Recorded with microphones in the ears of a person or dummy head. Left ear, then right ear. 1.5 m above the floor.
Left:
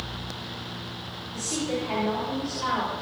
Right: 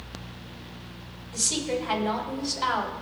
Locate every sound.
1.3 s a woman speaking: 65° right (ahead or behind), 3.5 m